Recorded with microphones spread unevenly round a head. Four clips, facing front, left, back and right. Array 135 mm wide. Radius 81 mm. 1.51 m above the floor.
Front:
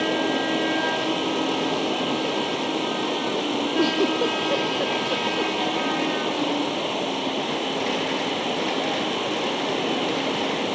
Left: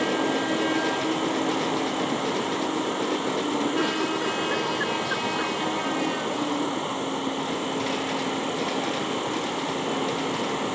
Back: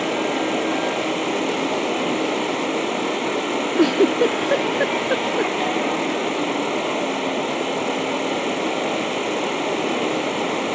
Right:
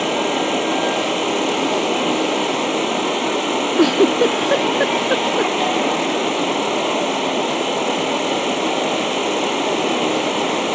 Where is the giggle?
130° right.